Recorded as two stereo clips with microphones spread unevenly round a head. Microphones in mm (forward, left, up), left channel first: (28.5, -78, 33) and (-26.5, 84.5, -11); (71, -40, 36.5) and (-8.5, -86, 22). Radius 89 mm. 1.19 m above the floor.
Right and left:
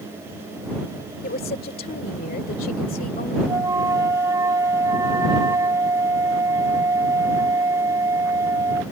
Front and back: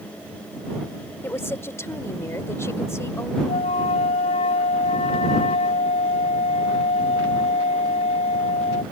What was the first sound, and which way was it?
A woman speaking, 30° right.